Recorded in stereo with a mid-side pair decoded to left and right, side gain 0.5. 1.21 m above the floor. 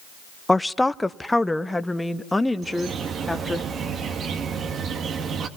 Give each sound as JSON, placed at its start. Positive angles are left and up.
{"t": 0.5, "sound": "a woman speaking", "azimuth_deg": 10, "distance_m": 0.7}
{"t": 2.6, "sound": "a bird", "azimuth_deg": -50, "distance_m": 2.5}